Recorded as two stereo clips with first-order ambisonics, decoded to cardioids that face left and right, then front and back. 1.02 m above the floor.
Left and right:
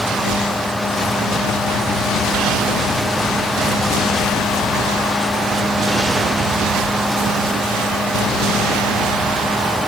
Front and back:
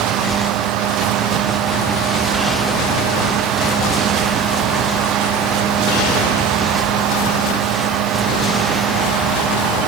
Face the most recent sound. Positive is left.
No sound to turn to.